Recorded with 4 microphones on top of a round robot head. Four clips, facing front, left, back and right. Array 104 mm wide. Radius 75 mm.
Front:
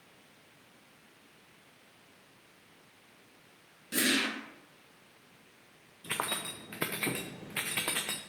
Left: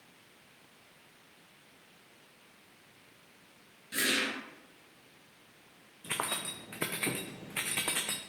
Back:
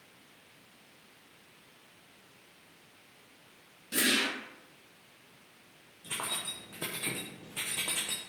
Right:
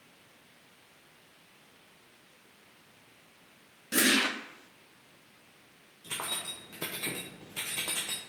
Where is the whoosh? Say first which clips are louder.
Right 6 dB, even; 85° right, 0.9 m.